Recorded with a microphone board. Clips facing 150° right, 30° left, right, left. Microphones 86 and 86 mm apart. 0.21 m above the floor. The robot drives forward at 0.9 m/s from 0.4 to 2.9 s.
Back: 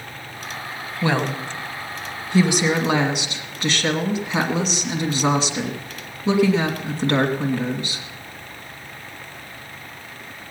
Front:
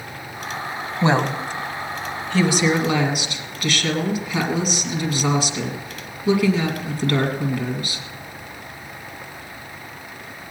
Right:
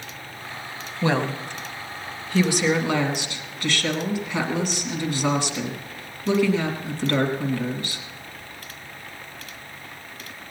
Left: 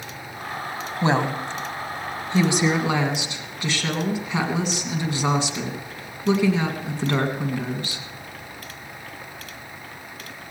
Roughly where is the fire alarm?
No fire alarm in this recording.